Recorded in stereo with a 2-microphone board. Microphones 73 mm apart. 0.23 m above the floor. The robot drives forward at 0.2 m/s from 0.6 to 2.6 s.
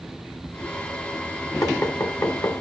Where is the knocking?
50° left (ahead or behind), 1.1 m; by 2.6 s 55° left (ahead or behind), 1.1 m.